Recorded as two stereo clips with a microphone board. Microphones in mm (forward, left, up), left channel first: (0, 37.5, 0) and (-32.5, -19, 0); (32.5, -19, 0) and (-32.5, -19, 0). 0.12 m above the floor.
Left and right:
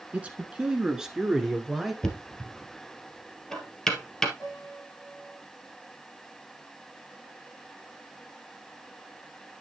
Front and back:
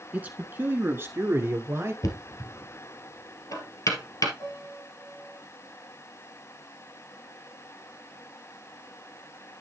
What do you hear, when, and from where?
0.1 s a man speaking: 155° right, 1.3 m; by 1.9 s 145° left, 1.9 m
2.0 s knocking: 25° right, 1.7 m
4.4 s a piano: 10° left, 5 m